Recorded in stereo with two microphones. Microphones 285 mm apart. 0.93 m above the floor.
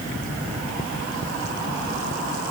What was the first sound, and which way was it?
Only background noise.